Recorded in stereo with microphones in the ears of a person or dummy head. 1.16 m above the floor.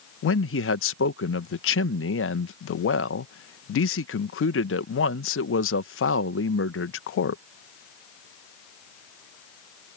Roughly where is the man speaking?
Left.